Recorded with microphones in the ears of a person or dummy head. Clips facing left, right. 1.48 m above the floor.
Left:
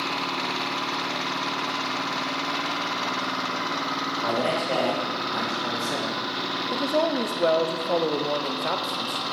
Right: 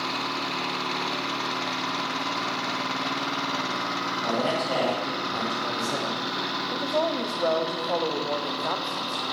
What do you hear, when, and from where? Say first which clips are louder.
4.2 s a man speaking: left 1 dB; 30° left (ahead or behind), 4 m; by 6.2 s 15° left (ahead or behind), 3 m
6.7 s a woman speaking: left 3 dB; 25° left (ahead or behind), 0.6 m